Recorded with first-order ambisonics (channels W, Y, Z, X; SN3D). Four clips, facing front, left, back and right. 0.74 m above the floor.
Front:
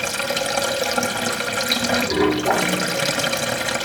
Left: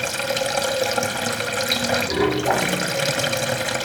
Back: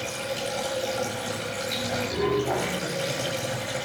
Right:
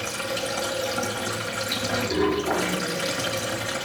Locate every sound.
0.0 s running water: 40° left, 1.4 m